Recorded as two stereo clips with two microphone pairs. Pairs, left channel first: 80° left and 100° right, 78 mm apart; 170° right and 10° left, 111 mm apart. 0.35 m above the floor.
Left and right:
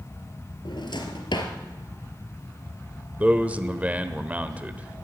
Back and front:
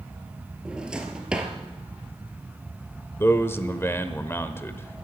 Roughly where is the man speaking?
Behind right.